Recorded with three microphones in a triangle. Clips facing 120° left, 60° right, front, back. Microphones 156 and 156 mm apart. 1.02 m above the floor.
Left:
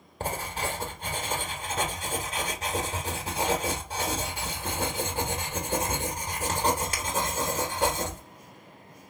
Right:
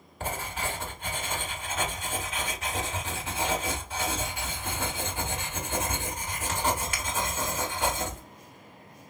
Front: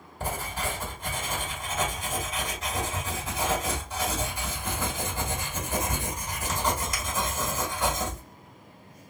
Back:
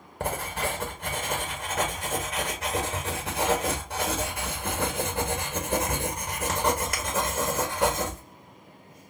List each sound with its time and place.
0.2 s writing: 170° left, 1.5 m